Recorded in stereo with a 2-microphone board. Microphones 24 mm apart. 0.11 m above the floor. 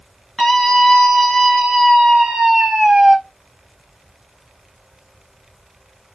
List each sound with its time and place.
0.4 s a scream: 25° left (ahead or behind), 1.7 m; by 3.2 s 30° right (ahead or behind), 2.0 m